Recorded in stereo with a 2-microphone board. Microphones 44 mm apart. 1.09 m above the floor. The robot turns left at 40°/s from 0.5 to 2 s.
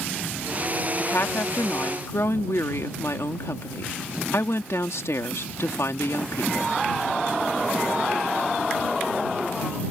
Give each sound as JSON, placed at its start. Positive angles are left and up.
{"t": 1.0, "sound": "a woman speaking", "azimuth_deg": 130}